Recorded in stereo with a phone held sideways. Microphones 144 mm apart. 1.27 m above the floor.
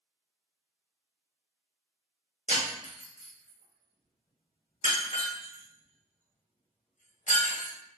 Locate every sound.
2.5 s breaking glass: 60° left (ahead or behind), 1.1 m